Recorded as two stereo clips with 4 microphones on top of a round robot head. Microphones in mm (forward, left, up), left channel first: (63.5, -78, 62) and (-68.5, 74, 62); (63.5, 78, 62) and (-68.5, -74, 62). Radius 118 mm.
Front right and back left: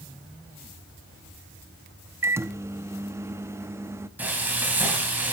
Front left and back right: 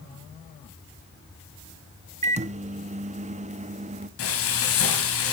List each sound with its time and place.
2.2 s a microwave: 160° right, 0.8 m
4.2 s frying: 50° left, 3.5 m